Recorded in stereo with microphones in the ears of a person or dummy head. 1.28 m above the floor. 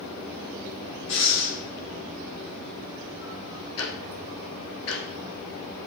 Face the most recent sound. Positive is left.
turn(degrees=70)  # may be behind; listen again after turning